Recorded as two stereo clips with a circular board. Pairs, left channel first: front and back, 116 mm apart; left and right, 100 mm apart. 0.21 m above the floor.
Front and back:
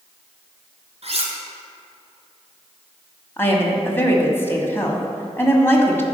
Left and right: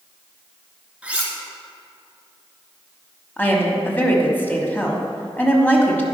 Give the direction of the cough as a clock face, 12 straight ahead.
No cough in this recording.